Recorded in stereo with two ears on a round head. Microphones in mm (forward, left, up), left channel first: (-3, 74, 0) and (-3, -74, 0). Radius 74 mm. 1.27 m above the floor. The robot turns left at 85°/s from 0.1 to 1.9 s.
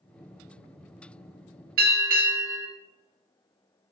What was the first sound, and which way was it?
A bell, 60° right (ahead or behind).